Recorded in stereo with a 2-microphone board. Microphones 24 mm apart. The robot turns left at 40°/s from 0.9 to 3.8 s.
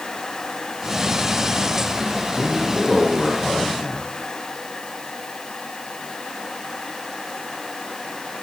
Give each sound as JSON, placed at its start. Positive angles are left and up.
{"t": 2.4, "sound": "a man speaking", "azimuth_deg": 180, "distance_m": 6.5}